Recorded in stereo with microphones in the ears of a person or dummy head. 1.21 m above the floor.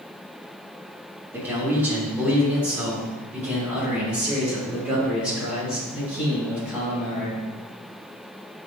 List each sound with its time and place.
1.3 s a man speaking: 15° right (ahead or behind), 2.5 m; by 7.4 s 10° right (ahead or behind), 7.5 m